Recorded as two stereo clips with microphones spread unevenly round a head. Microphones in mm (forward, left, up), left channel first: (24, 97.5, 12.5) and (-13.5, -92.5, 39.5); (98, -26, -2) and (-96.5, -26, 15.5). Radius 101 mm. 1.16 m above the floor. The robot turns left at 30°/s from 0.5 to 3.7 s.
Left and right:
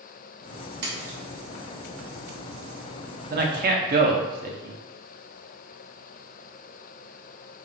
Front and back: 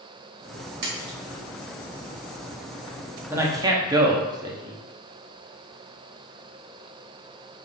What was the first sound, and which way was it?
A splash, 140° right.